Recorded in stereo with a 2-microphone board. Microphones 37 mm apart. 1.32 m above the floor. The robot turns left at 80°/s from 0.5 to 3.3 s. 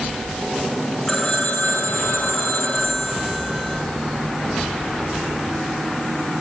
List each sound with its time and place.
1.1 s a phone ringing: 165° left, 2.5 m; by 3.8 s 10° right, 2.5 m